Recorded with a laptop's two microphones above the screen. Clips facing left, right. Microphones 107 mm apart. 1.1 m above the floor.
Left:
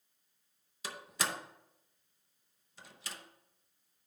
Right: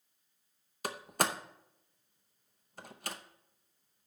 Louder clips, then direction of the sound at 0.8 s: Right 5 dB; 50° right (ahead or behind).